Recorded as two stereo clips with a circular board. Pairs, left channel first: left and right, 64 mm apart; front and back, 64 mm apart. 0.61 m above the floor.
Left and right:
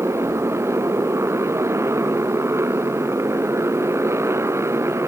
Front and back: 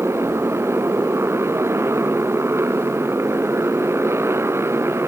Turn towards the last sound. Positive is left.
turn(degrees=-135)